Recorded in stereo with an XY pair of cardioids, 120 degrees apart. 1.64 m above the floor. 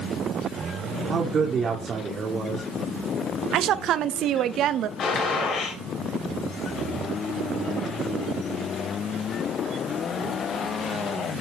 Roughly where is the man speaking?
Ahead right.